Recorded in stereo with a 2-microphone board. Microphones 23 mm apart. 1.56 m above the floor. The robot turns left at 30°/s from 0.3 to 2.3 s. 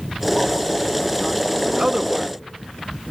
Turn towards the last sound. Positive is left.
turn(degrees=-20)  # may be behind; listen again after turning